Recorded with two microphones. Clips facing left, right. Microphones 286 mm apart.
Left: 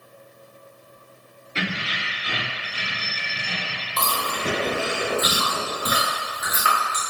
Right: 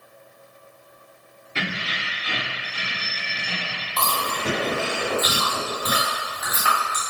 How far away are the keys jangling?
About 2.0 m.